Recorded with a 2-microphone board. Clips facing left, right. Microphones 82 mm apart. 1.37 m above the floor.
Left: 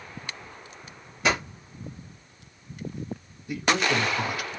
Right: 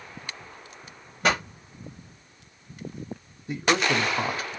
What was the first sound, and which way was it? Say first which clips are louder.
A pop: right 1 dB; 45° right (ahead or behind).